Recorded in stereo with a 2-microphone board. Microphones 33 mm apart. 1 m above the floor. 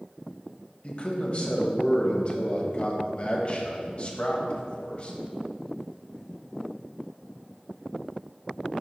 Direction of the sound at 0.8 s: 35° left (ahead or behind).